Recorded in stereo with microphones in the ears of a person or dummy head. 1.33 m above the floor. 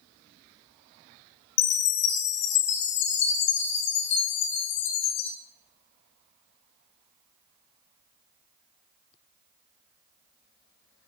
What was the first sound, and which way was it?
A chime, 65° left (ahead or behind).